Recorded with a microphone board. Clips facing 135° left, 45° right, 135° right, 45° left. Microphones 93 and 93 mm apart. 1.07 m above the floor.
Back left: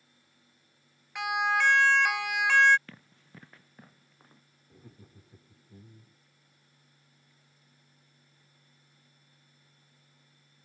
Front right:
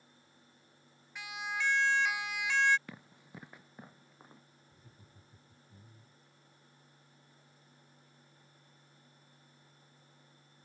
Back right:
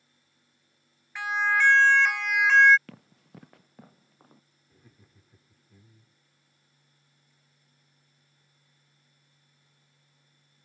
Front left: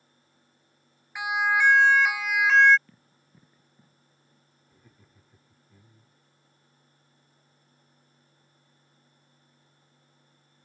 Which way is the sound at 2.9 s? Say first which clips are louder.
Front right 2 dB, back right 10 dB; 120° right.